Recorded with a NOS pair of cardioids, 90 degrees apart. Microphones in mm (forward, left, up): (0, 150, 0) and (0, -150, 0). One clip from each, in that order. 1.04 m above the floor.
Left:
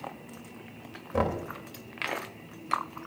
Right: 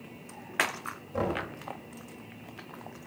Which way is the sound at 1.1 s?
35° left.